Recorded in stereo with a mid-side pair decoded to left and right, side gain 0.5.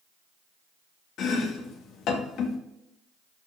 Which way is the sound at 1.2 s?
70° left.